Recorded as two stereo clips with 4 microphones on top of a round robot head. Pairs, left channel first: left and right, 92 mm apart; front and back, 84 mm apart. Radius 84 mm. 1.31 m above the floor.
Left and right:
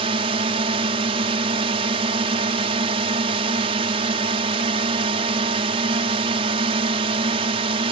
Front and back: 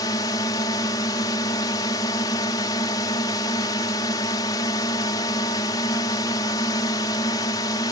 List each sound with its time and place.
0.0 s a drone: 55° right